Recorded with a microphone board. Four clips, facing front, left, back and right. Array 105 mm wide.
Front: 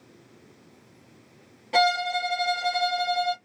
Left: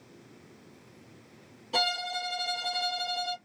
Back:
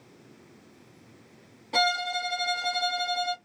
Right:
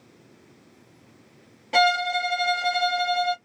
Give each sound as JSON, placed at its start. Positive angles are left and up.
{"t": 1.7, "sound": "a violin", "azimuth_deg": -65, "distance_m": 1.9}